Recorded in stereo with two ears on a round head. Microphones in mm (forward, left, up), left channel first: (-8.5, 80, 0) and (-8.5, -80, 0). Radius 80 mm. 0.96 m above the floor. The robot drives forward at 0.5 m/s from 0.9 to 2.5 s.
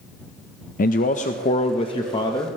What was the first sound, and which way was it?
A man speaking, 50° left (ahead or behind).